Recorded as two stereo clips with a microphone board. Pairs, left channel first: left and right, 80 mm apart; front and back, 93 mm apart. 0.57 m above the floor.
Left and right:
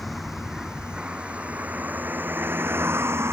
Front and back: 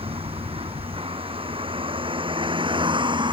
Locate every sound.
0.0 s a vehicle: straight behind; by 3.3 s 145° right